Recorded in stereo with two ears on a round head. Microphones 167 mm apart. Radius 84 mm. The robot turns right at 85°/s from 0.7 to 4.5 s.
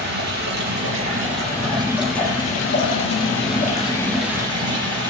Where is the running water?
115° right, 5.5 m; by 5.1 s 155° right, 5.5 m.